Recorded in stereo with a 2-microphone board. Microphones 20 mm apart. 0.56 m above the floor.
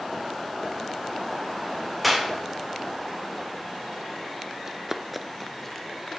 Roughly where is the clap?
Centre.